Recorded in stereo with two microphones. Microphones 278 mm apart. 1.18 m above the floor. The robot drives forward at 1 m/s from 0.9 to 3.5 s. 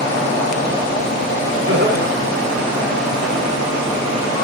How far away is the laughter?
About 3.5 m.